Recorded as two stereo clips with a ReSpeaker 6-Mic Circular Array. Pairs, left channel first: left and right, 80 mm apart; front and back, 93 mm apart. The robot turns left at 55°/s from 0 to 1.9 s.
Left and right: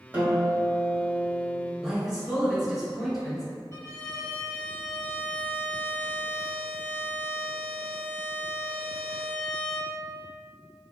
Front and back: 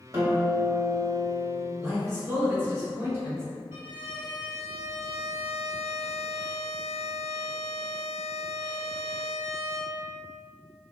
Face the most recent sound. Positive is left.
turn(degrees=130)